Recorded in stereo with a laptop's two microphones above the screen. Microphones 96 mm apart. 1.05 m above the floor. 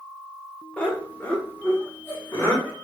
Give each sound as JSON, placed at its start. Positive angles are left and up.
{"t": 0.8, "sound": "laughter", "side_deg": 15, "distance_m": 0.8}